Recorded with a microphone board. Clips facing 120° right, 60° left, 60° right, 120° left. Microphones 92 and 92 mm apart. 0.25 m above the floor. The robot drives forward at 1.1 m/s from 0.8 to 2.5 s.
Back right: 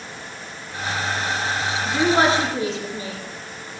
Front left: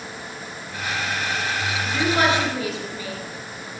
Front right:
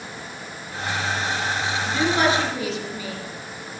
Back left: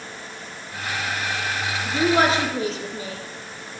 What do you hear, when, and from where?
1.9 s a woman speaking: 175° left, 3 m